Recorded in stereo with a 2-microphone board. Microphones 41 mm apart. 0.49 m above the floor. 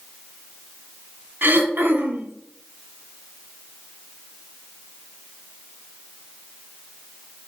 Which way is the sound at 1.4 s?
55° right (ahead or behind).